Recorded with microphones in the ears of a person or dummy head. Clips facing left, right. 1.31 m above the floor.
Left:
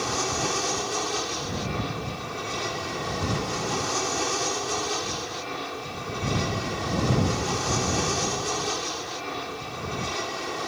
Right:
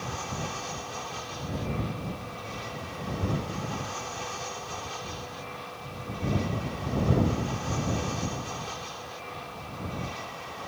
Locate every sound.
0.0 s an aircraft: 70° left (ahead or behind)